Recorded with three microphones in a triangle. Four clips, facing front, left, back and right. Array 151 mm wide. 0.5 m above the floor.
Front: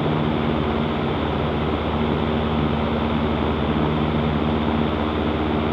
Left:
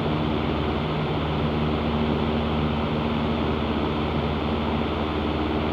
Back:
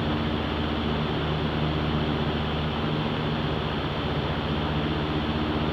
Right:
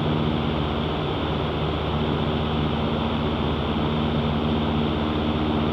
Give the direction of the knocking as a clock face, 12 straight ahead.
No knocking in this recording.